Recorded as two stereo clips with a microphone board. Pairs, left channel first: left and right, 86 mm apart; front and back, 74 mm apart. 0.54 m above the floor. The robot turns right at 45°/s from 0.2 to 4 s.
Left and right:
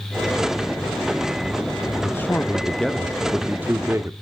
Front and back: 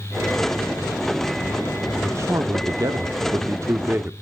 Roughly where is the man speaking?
Behind left.